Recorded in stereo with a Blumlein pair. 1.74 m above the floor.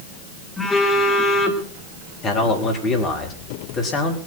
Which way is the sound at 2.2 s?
30° left.